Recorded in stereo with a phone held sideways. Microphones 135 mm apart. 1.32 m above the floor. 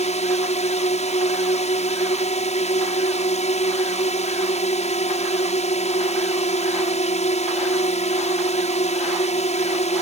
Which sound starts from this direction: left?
A drone, at 0.0 s.